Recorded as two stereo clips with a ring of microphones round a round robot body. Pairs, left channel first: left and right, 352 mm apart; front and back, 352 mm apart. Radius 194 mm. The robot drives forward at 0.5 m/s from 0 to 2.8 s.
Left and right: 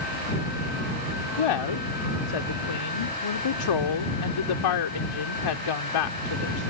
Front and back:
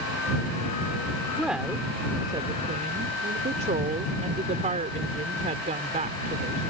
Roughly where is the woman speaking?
Left.